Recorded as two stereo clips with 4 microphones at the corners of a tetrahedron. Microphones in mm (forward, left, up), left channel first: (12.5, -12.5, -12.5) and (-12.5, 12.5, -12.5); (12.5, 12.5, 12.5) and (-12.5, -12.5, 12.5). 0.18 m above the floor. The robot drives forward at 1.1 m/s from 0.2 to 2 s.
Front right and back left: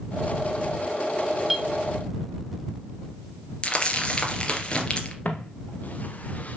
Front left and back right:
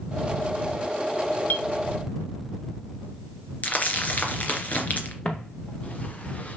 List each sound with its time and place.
1.5 s a clink: 50° left, 1.0 m; by 1.7 s 60° left, 0.9 m
3.6 s crumpling: 10° left, 2.5 m
5.2 s footsteps: 10° right, 2.5 m; by 6.6 s straight ahead, 1.5 m